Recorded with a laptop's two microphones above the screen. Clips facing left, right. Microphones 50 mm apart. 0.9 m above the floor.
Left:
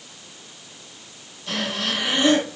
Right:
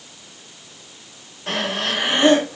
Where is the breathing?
60° right (ahead or behind), 2.5 m.